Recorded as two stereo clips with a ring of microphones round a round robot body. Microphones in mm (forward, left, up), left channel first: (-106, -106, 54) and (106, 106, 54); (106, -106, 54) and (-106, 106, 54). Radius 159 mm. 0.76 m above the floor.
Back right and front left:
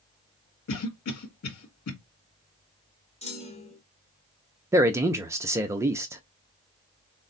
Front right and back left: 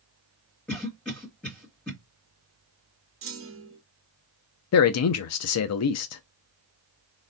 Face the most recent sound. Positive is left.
turn(degrees=-35)